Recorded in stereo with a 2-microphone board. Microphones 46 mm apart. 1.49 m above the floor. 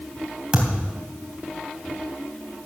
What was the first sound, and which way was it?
A thud, 25° right (ahead or behind).